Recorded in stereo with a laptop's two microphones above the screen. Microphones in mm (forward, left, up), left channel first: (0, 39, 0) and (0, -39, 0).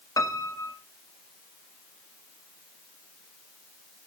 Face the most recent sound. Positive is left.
turn(degrees=45)  # may be behind; listen again after turning